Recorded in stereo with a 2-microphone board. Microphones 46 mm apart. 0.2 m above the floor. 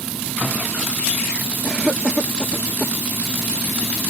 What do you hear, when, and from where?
1.6 s a cough: 20° right (ahead or behind)